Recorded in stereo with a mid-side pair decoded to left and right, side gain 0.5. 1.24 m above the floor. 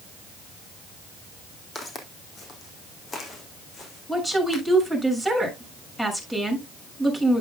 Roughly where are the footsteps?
Ahead left.